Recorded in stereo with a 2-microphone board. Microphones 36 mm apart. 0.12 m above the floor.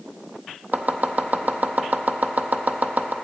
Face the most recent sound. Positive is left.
turn(degrees=-55)  # may be behind; listen again after turning